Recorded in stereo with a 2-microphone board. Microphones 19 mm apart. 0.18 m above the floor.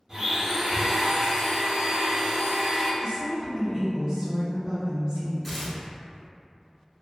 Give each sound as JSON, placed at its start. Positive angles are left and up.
{"t": 0.1, "sound": "a blender", "side_deg": -30, "distance_m": 1.1}
{"t": 3.0, "sound": "a woman speaking", "side_deg": -40, "distance_m": 1.3}
{"t": 5.4, "sound": "tearing paper", "side_deg": 20, "distance_m": 0.7}